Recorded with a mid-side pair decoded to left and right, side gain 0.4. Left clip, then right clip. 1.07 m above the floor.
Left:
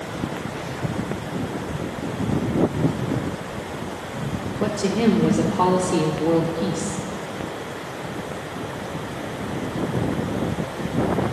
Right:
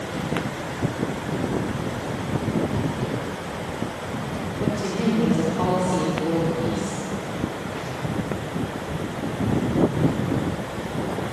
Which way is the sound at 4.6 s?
55° left.